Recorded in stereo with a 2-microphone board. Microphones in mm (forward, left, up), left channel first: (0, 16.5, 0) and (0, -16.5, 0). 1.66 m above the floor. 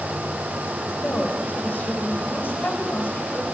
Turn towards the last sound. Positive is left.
turn(degrees=80)